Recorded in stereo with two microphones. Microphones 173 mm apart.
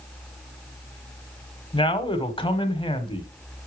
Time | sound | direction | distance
1.7 | a man speaking | 30° left (ahead or behind) | 1.2 m